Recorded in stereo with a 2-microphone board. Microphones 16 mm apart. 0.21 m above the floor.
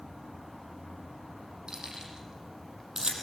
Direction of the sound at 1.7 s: 65° right (ahead or behind).